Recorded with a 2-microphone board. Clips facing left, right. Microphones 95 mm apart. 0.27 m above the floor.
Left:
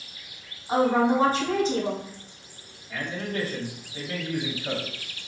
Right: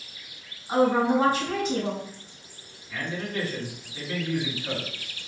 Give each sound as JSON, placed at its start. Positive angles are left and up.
{"t": 0.7, "sound": "a woman speaking", "side_deg": 35, "distance_m": 1.7}
{"t": 2.9, "sound": "a man speaking", "side_deg": 40, "distance_m": 1.5}